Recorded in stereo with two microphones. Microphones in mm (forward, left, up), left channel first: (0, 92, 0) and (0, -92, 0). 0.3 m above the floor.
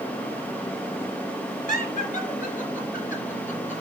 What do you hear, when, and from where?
1.7 s laughter: 45° left (ahead or behind), 3.5 m